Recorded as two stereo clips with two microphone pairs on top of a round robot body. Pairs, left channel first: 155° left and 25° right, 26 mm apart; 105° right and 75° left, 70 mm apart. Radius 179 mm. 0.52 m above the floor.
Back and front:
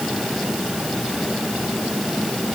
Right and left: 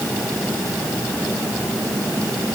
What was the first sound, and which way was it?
Only background noise.